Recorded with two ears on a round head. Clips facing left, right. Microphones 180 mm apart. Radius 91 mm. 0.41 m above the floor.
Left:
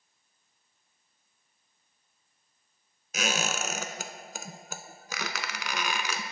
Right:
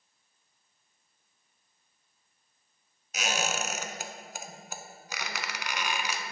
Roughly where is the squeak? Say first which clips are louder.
Left 1 dB; left.